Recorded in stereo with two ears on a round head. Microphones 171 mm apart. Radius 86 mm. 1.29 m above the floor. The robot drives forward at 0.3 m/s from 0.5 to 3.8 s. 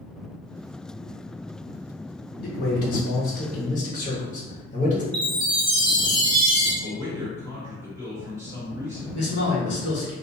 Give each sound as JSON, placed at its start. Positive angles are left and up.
{"t": 2.4, "sound": "a man speaking", "side_deg": 55, "distance_m": 0.9}
{"t": 5.1, "sound": "a chime", "side_deg": -30, "distance_m": 0.9}
{"t": 6.8, "sound": "a man speaking", "side_deg": -15, "distance_m": 1.4}
{"t": 9.1, "sound": "a man speaking", "side_deg": 75, "distance_m": 1.3}